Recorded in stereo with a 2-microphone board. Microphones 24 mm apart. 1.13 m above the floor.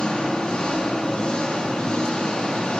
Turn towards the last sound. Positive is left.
turn(degrees=55)  # may be behind; listen again after turning